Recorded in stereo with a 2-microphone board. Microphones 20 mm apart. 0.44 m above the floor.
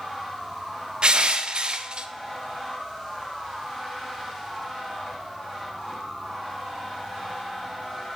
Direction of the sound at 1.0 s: 50° right (ahead or behind).